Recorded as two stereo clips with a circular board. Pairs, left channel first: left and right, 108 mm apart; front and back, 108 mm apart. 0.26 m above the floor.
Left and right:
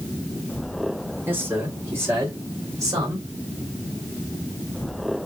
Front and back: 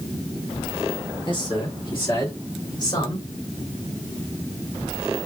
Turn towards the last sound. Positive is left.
turn(degrees=-40)